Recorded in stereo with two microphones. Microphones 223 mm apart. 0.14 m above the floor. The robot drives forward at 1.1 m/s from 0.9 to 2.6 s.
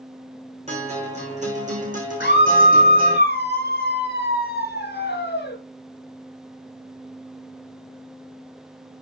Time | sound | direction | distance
0.7 | a guitar | 30° right (ahead or behind) | 6.5 m
2.2 | a scream | 50° left (ahead or behind) | 2.5 m